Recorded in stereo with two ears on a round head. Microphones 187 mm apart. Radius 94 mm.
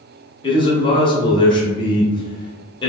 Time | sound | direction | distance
0.4 | a man speaking | 25° left (ahead or behind) | 0.7 m